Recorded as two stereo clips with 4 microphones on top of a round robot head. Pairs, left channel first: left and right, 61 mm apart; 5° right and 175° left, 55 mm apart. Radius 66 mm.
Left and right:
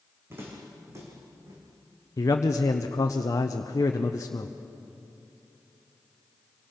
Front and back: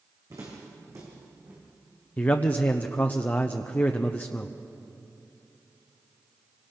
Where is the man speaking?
55° left, 0.8 m.